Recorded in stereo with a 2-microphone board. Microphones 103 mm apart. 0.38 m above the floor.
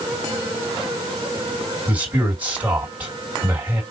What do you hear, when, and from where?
1.9 s a man speaking: 15° right (ahead or behind), 2 m